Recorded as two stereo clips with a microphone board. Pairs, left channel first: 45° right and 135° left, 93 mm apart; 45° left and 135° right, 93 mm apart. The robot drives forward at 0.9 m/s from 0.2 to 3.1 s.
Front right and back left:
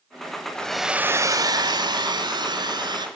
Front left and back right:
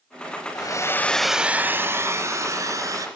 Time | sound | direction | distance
0.6 | a hair dryer | 30° left | 0.7 m